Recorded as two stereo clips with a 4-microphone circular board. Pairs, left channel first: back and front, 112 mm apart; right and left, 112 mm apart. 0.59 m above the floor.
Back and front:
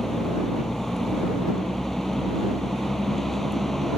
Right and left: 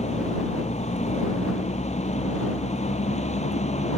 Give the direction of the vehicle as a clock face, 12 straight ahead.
3 o'clock.